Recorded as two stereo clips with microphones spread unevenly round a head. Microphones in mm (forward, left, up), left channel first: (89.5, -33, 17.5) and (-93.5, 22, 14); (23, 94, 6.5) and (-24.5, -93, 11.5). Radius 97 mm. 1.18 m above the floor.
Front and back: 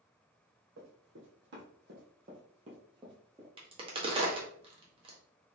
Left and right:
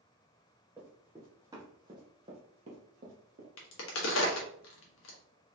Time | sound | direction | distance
0.8 | running footsteps | 175° left | 2.5 m
3.6 | a crack | 100° left | 1.2 m